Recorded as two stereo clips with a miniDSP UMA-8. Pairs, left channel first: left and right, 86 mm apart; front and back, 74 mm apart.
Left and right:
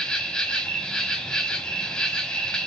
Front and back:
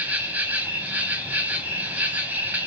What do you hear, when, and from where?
0.0 s an insect: 155° left, 0.9 m